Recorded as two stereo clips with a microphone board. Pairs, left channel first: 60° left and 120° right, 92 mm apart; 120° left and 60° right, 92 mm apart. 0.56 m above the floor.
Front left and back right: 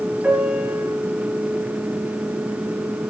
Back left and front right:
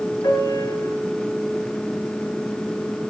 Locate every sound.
0.2 s a piano: 165° left, 6 m